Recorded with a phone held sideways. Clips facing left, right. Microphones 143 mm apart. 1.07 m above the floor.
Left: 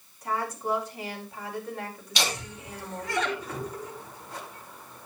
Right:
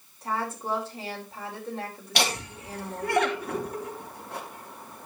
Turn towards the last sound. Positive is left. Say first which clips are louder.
# right 3 dB
turn(degrees=-60)  # may be behind; listen again after turning